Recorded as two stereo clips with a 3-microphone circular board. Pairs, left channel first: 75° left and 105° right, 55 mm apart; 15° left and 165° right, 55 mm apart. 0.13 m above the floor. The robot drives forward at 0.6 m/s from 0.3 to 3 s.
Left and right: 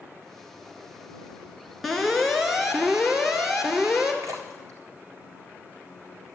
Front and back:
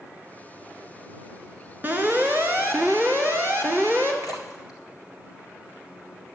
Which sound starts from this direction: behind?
An alarm, at 1.8 s.